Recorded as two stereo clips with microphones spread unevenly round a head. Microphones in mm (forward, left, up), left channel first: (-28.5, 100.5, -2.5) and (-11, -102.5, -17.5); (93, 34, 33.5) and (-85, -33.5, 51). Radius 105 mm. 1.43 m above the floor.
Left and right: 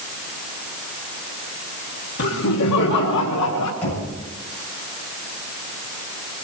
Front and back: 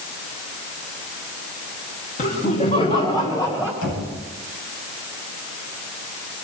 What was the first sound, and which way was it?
Laughter, 70° left.